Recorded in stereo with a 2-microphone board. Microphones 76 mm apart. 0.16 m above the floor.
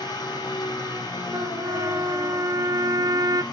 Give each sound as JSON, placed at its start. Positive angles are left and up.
{"t": 0.0, "sound": "an engine running", "side_deg": 65, "distance_m": 5.5}
{"t": 1.3, "sound": "a trumpet", "side_deg": -60, "distance_m": 0.6}